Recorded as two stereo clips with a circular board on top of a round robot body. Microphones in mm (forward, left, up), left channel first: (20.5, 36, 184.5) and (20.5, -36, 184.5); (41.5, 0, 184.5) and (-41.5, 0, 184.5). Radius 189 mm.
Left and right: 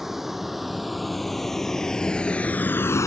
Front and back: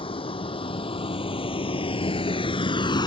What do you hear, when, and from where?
0.0 s a vehicle: 5° right; by 3.1 s 40° left